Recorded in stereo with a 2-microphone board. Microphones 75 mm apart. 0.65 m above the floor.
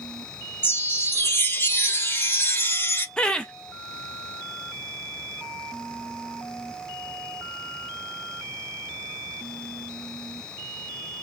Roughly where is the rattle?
I don't hear a rattle.